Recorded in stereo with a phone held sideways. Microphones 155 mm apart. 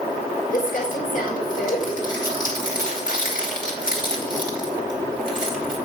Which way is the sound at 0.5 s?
60° left (ahead or behind).